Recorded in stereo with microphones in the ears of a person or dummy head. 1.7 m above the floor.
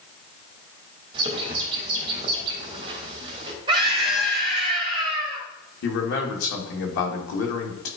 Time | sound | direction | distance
1.1 | a bird | 35° right (ahead or behind) | 3 m
3.7 | a scream | 30° right (ahead or behind) | 3 m
5.8 | a man speaking | 80° left | 2.5 m